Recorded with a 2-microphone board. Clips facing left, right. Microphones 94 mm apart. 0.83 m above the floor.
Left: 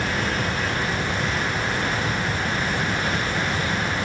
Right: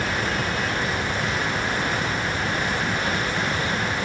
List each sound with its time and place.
Only background noise.